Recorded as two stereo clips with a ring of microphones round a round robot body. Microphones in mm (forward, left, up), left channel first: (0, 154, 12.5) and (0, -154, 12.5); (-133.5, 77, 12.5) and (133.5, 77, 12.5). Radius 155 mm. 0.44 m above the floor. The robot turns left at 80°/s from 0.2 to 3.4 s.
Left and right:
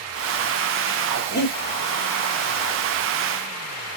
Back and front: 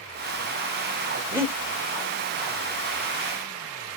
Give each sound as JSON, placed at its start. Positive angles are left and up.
{"t": 1.3, "sound": "breathing", "azimuth_deg": 80, "distance_m": 1.6}